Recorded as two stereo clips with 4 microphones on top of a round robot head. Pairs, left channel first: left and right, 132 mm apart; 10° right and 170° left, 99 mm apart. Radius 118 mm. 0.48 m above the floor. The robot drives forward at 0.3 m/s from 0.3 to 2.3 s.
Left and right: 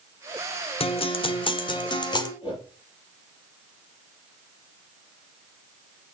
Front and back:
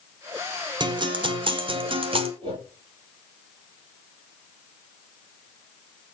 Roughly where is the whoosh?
Behind left.